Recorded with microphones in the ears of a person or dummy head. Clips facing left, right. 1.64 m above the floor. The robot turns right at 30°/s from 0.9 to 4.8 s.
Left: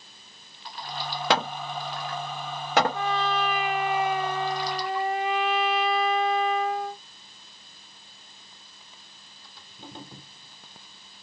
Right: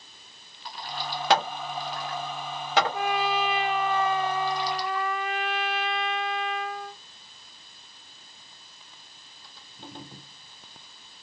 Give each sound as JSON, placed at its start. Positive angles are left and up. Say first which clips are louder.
{"t": 1.3, "sound": "hammering", "louder": "right 2 dB", "side_deg": 65, "distance_m": 0.8}
{"t": 2.9, "sound": "a trumpet", "louder": "even", "azimuth_deg": -20, "distance_m": 0.6}